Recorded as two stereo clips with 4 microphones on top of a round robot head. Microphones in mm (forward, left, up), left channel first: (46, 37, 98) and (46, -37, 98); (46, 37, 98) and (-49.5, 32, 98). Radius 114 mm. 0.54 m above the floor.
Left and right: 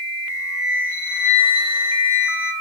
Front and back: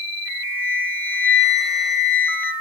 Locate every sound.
0.2 s a flute: 15° right, 7.5 m